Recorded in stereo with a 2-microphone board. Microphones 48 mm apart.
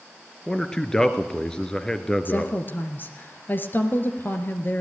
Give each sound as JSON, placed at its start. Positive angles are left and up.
{"t": 0.5, "sound": "a man speaking", "side_deg": 15, "distance_m": 1.6}
{"t": 2.2, "sound": "a woman speaking", "side_deg": 45, "distance_m": 2.0}